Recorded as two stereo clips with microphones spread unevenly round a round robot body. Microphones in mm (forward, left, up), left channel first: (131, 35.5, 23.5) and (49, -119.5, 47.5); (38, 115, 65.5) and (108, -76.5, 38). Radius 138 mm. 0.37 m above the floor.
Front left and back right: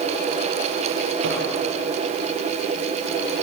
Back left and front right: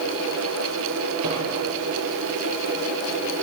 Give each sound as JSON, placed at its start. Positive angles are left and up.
{"t": 1.2, "sound": "a microwave", "azimuth_deg": -120, "distance_m": 9.5}